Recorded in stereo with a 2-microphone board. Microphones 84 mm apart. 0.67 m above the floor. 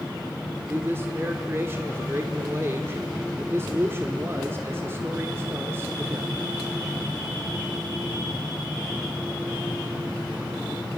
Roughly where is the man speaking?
Right.